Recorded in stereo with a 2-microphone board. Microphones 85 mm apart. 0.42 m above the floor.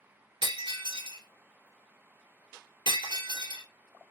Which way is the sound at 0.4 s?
70° right (ahead or behind).